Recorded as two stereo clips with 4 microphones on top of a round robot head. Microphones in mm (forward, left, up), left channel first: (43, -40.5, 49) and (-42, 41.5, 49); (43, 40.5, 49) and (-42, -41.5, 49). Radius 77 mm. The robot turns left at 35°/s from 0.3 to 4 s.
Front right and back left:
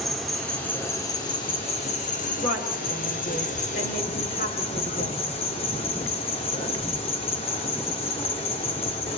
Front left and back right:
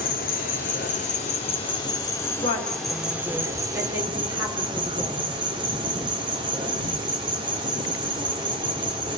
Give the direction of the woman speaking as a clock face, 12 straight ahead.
12 o'clock.